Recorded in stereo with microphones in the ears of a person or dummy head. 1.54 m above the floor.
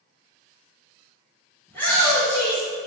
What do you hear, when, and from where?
1.7 s a shout: 10° left (ahead or behind), 1.7 m